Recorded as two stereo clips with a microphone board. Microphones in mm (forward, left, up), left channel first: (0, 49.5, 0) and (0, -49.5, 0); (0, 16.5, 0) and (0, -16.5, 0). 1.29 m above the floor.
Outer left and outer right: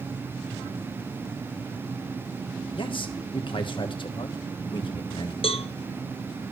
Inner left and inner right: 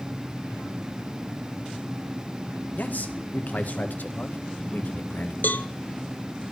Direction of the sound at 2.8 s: 55° left (ahead or behind).